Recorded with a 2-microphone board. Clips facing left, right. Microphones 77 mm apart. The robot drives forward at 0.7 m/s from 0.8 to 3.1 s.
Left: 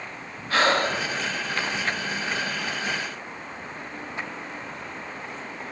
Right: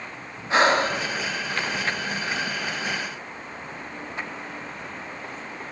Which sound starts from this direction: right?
Breathing, at 0.5 s.